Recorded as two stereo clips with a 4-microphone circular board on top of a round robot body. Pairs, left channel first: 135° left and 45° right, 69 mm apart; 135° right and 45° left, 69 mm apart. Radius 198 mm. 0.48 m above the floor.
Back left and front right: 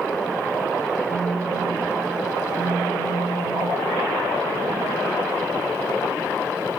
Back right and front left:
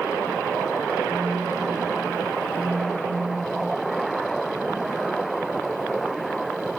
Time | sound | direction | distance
1.1 | a phone buzzing | 145° left | 5.5 m